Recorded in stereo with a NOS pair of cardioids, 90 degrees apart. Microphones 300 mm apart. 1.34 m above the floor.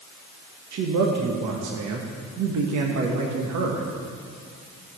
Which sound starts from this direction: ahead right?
A man speaking, at 0.7 s.